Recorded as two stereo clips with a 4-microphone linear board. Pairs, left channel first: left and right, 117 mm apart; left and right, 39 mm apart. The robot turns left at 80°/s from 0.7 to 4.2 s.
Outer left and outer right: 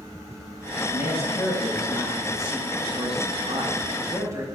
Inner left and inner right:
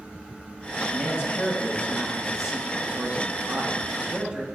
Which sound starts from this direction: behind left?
A man speaking, at 0.9 s.